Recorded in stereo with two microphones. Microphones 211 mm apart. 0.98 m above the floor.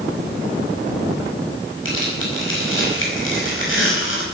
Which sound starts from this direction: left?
Tearing paper, at 1.9 s.